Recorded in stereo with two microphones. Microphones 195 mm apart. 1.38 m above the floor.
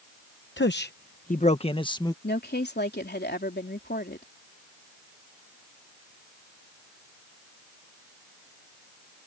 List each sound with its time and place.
0.6 s a man speaking: 75° left (ahead or behind); by 2.1 s 20° left (ahead or behind)
2.2 s a woman speaking: 60° left (ahead or behind)